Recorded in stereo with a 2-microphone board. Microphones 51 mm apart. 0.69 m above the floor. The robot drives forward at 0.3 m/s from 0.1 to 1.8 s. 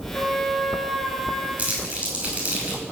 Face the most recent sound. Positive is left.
turn(degrees=-25)  # may be behind; listen again after turning